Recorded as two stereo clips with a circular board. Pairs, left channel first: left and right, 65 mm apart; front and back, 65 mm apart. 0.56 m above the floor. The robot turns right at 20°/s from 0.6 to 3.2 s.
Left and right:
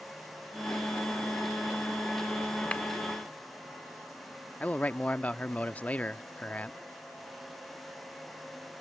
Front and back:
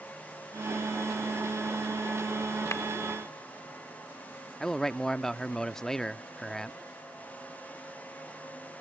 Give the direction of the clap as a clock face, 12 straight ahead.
11 o'clock.